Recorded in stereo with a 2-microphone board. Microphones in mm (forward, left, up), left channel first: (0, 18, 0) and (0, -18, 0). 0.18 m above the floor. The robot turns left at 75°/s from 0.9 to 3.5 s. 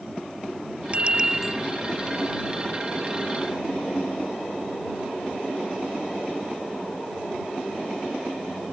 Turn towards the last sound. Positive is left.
turn(degrees=30)